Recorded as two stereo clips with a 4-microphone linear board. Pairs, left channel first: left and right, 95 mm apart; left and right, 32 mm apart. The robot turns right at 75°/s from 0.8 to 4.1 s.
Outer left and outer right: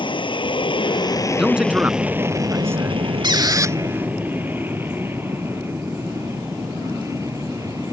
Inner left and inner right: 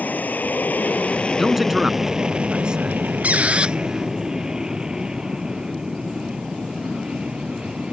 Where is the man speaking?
5° right (ahead or behind); by 3.0 s 20° right (ahead or behind).